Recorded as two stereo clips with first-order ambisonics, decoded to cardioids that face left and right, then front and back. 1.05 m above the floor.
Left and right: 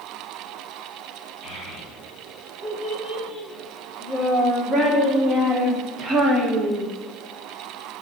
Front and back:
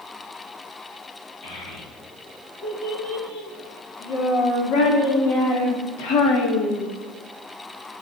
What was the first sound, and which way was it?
A child speaking, 5° right.